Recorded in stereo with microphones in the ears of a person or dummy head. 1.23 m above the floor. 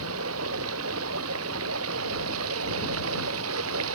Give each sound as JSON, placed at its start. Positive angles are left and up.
{"t": 0.0, "sound": "running water", "side_deg": -75}